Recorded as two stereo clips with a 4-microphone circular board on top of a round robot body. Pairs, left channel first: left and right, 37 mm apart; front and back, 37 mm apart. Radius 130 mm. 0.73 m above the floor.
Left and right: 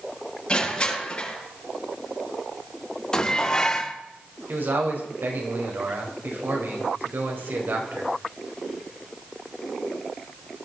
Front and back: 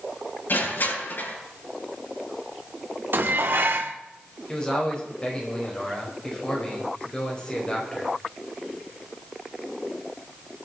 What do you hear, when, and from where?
0.5 s crushing: 25° left, 9 m
3.1 s dishes clattering: 160° left, 1.5 m
4.5 s a man speaking: 65° right, 5 m